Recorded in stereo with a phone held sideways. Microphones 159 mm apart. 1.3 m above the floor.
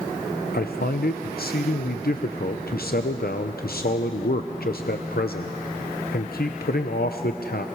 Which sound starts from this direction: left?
A man speaking, at 0.5 s.